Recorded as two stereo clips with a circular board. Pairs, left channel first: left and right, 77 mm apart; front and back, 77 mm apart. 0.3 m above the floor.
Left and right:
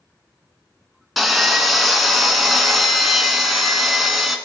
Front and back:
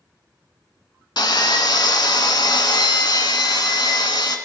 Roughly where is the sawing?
Ahead.